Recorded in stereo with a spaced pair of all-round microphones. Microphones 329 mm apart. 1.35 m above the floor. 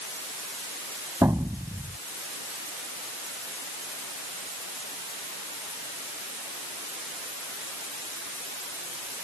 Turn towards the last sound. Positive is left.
turn(degrees=-10)  # may be behind; listen again after turning